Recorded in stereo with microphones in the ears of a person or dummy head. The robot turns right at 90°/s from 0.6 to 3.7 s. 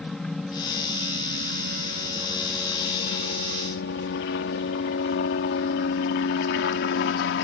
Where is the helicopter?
Centre (ahead or behind); by 7.5 s 60° left (ahead or behind).